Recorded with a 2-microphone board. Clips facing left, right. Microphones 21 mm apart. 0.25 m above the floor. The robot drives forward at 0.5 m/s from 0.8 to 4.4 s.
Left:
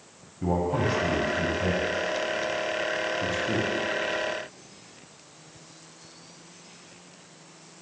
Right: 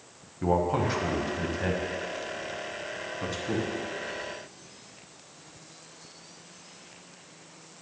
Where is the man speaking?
15° right (ahead or behind), 1.1 m; by 3.7 s 10° right (ahead or behind), 2 m.